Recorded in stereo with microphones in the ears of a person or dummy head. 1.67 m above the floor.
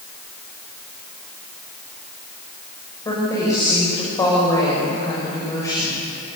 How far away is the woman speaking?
About 6.5 m.